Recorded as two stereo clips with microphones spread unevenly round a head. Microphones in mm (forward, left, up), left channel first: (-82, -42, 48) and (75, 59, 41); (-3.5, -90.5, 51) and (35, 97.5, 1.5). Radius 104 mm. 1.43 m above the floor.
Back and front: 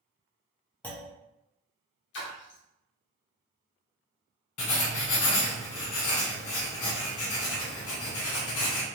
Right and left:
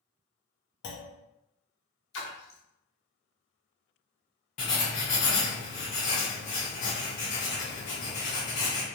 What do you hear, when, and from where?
0.8 s a clunk: 65° right, 0.6 m
2.1 s a splash: 115° right, 0.7 m
4.6 s writing: 150° right, 0.9 m